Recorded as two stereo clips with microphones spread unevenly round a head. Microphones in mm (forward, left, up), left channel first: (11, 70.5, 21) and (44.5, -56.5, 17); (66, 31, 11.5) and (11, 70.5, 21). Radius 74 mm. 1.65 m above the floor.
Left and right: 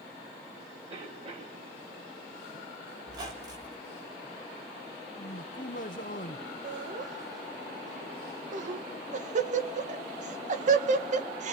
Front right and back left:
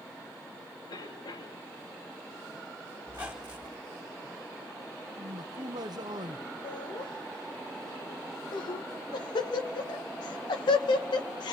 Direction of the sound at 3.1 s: 140° right.